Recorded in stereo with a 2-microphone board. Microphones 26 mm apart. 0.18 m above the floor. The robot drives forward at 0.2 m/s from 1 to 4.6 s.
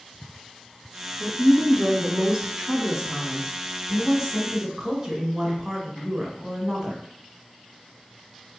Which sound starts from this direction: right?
A woman speaking, at 1.2 s.